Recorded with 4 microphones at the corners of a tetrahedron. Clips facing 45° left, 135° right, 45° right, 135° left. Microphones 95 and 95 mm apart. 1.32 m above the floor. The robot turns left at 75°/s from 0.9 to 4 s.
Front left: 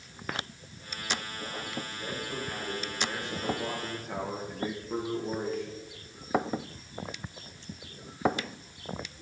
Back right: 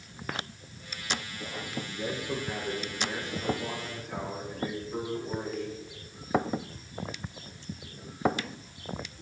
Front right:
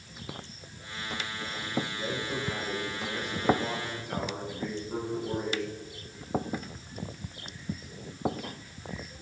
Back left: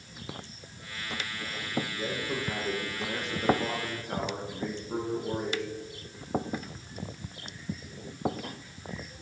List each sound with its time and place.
1.9 s a man speaking: 140° right, 1.7 m; by 5.8 s 60° left, 1.7 m